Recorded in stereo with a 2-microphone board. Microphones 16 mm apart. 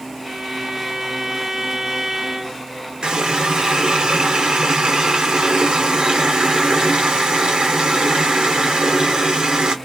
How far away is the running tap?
About 1.0 m.